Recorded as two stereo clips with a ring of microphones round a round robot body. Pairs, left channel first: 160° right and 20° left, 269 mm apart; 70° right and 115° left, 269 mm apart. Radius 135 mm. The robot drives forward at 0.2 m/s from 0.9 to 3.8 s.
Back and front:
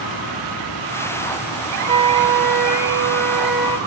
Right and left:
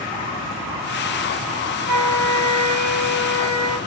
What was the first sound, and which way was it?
A flute, 85° left.